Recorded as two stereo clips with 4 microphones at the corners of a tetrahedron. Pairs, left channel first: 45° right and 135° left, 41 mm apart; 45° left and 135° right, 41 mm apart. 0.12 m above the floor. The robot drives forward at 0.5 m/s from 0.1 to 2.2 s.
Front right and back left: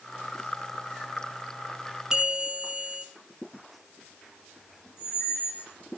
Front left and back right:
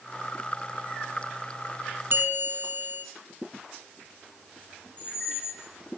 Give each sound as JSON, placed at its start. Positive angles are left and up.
{"t": 2.1, "sound": "a bell", "azimuth_deg": -155, "distance_m": 1.0}
{"t": 5.0, "sound": "a squeak", "azimuth_deg": -15, "distance_m": 5.0}